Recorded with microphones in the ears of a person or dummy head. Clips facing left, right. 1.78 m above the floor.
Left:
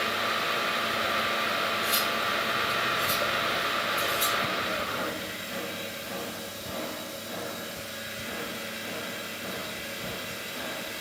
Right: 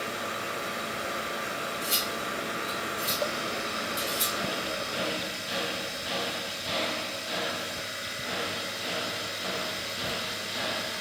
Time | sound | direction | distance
1.8 | cutlery clinking | 60° right (ahead or behind) | 1.8 m